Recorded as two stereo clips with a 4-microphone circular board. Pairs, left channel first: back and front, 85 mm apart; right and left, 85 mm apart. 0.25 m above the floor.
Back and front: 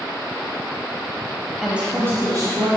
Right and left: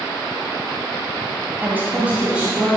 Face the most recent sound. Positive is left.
turn(degrees=15)